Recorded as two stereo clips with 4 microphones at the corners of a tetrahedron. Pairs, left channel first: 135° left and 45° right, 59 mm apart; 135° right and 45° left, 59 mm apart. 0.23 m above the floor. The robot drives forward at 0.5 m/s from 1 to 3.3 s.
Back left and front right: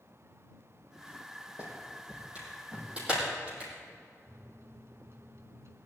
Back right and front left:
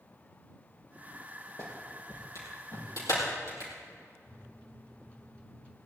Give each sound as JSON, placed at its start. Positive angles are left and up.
{"t": 1.6, "sound": "a clap", "azimuth_deg": -110, "distance_m": 6.0}
{"t": 4.3, "sound": "a microwave", "azimuth_deg": -70, "distance_m": 1.5}